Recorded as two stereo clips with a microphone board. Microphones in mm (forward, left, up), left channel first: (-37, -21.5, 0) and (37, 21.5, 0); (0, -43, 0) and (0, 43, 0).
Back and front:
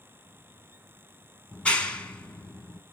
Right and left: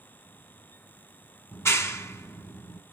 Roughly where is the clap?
Right.